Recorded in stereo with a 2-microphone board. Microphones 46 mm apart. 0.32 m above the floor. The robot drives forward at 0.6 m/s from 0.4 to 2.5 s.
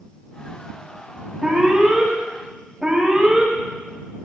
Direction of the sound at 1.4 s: 15° right (ahead or behind).